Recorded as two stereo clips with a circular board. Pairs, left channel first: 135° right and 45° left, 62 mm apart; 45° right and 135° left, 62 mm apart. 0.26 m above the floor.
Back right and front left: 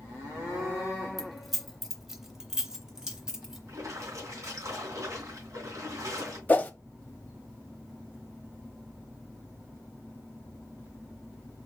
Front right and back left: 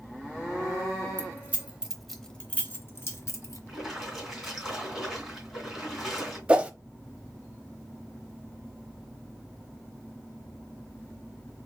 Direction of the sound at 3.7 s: 45° left.